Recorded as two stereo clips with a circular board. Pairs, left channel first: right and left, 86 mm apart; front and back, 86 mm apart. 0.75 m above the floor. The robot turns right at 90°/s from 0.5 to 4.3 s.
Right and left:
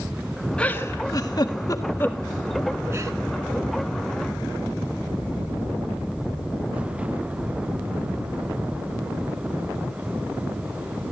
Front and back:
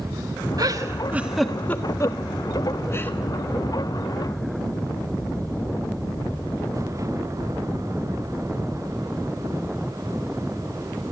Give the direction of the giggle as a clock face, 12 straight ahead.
6 o'clock.